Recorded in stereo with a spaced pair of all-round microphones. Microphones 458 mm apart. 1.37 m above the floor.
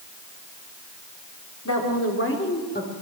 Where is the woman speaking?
35° left (ahead or behind), 4 m; by 2.9 s 20° left (ahead or behind), 4.5 m.